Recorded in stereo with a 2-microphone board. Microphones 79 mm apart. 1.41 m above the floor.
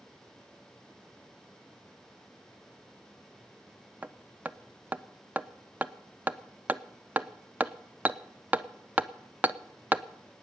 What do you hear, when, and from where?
4.0 s hammering: 20° right (ahead or behind), 0.5 m